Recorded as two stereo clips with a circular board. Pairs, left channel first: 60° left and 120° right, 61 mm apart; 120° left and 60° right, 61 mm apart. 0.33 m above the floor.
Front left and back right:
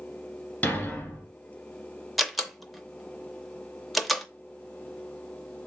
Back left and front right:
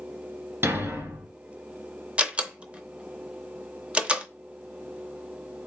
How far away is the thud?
About 1.3 m.